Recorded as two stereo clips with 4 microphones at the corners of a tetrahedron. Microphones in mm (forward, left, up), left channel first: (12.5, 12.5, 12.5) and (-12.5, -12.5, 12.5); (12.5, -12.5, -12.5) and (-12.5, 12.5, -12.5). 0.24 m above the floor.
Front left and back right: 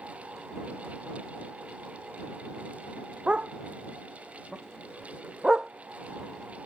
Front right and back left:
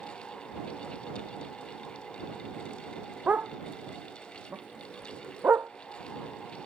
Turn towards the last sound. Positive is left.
turn(degrees=150)